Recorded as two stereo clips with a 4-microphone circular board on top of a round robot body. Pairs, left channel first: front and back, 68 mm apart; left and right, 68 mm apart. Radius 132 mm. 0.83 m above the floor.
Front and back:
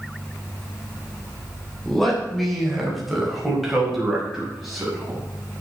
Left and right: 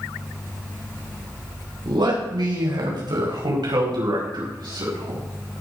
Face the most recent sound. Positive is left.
turn(degrees=-95)